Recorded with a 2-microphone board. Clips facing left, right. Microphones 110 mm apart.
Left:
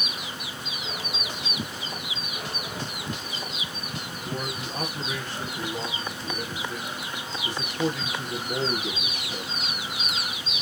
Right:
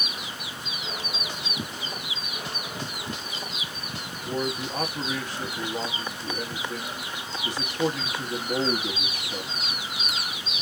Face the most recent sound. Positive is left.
turn(degrees=-15)  # may be behind; listen again after turning